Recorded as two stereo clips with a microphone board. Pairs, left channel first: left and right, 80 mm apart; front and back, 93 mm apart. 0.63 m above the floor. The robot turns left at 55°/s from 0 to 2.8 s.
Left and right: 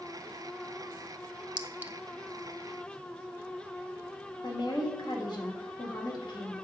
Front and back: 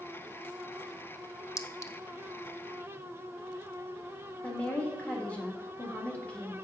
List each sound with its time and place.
1.6 s a clink: 20° right, 0.6 m; by 1.9 s 40° right, 0.6 m
4.4 s a woman speaking: 75° left, 1.6 m